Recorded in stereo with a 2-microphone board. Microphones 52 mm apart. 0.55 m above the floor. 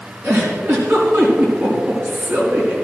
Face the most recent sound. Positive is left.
turn(degrees=-55)  # may be behind; listen again after turning